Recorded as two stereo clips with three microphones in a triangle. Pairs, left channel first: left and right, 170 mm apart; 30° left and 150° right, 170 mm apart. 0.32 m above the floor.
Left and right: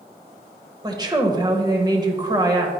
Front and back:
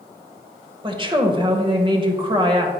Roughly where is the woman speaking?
Behind right.